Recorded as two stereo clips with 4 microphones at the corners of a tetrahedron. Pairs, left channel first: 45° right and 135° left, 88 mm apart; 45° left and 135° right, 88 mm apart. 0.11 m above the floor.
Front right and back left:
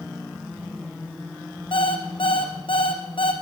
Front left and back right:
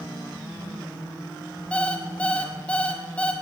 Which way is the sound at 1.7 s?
30° right.